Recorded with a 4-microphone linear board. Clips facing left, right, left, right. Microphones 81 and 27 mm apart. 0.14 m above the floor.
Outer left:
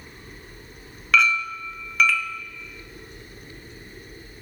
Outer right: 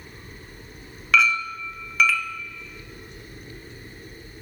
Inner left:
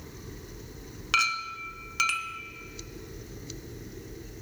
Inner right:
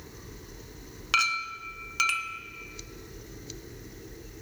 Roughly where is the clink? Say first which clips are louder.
Even, even; centre.